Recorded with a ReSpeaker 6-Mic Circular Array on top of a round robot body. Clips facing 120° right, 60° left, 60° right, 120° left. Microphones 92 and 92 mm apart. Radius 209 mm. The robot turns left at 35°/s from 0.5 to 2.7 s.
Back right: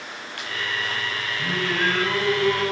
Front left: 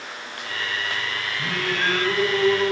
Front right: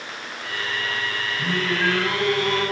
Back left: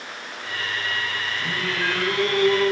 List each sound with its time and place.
1.4 s singing: 30° right, 6 m; by 2.7 s 80° right, 6 m